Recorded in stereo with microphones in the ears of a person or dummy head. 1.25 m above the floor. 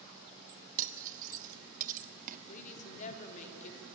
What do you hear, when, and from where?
0.8 s cutlery clinking: 45° right (ahead or behind), 1.6 m
2.5 s a woman speaking: 40° left (ahead or behind), 3.5 m